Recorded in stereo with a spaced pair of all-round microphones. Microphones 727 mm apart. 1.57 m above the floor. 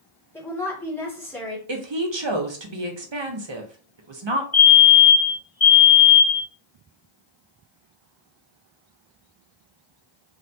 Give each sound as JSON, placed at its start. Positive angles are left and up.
{"t": 0.3, "sound": "a woman speaking", "side_deg": 5, "distance_m": 1.2}
{"t": 1.7, "sound": "a woman speaking", "side_deg": -40, "distance_m": 0.6}
{"t": 4.5, "sound": "a fire alarm", "side_deg": 50, "distance_m": 1.3}